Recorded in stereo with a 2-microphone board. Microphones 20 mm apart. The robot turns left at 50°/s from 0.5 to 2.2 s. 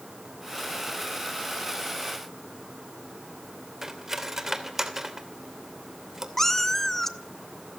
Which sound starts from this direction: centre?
A cat meowing, at 6.4 s.